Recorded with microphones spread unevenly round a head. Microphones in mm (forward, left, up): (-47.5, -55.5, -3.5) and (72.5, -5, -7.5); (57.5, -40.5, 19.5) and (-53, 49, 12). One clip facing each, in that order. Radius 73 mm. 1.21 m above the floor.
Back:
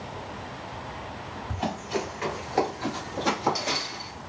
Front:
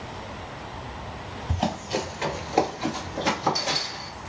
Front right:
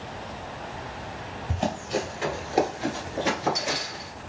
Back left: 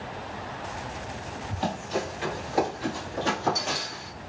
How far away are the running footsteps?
About 1.8 m.